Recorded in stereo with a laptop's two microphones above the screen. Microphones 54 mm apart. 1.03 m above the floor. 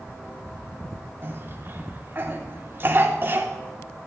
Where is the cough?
40° right (ahead or behind), 3 m.